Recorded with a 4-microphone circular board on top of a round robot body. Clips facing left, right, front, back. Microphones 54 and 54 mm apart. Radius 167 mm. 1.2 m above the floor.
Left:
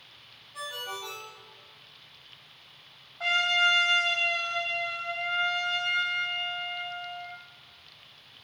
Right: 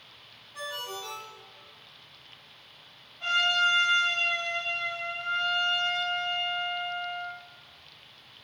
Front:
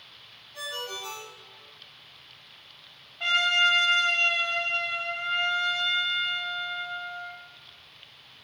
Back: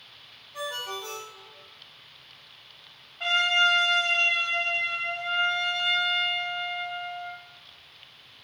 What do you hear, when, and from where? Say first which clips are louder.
0.5 s a ringtone: even, back 2 dB; 165° left, 1.9 m
3.2 s a trumpet: even, even; 90° left, 0.8 m